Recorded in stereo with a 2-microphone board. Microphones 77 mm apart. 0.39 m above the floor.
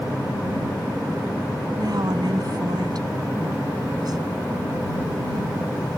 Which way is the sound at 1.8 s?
60° right (ahead or behind).